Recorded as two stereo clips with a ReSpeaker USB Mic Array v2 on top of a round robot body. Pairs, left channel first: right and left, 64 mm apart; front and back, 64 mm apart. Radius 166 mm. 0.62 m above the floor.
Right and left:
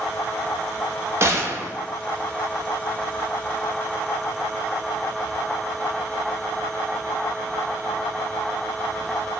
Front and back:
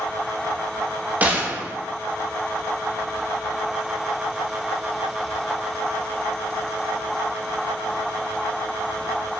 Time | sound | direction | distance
1.2 | a gunshot | 120° left | 0.6 m